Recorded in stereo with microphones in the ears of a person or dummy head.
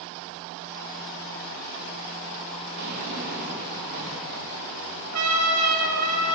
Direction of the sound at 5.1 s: 85° right.